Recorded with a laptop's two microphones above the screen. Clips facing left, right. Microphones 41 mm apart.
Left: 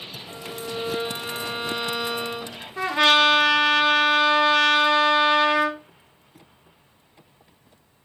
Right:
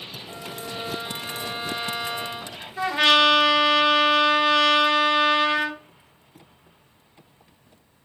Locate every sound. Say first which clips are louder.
0.3 s a violin: left 3 dB; 35° left (ahead or behind), 0.6 m
2.8 s a trumpet: even; 50° left (ahead or behind), 1.4 m